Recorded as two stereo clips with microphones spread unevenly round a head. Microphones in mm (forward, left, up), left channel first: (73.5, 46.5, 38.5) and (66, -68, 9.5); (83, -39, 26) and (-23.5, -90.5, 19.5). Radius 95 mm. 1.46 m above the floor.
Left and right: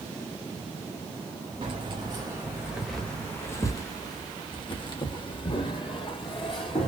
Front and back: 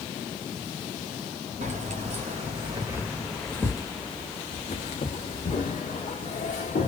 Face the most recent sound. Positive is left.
turn(degrees=50)